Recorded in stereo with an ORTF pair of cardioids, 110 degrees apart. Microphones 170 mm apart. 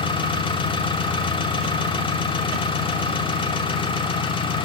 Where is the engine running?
30° left, 3 m.